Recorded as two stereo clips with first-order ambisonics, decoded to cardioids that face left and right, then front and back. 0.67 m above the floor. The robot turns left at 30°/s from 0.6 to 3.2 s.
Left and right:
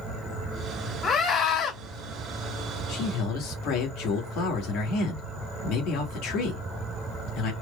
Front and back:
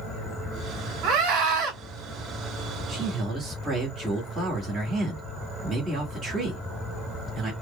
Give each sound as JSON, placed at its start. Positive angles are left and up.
{"t": 1.0, "sound": "a scream", "azimuth_deg": 165, "distance_m": 2.5}
{"t": 2.9, "sound": "a man speaking", "azimuth_deg": 120, "distance_m": 2.5}